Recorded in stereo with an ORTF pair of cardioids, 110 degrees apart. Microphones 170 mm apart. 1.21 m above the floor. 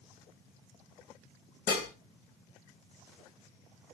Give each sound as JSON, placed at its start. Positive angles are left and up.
{"t": 1.7, "sound": "dishes clattering", "azimuth_deg": 65, "distance_m": 0.9}